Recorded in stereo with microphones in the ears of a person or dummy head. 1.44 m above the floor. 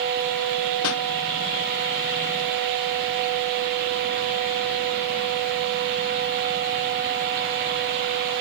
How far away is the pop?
About 0.7 m.